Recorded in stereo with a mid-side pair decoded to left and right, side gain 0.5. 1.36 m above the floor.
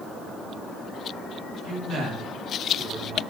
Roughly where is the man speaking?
Ahead right.